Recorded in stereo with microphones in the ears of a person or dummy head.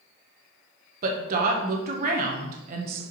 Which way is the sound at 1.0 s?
45° right (ahead or behind).